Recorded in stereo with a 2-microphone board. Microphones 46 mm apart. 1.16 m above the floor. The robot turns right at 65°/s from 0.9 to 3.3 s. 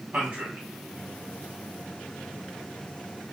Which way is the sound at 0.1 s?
35° right (ahead or behind).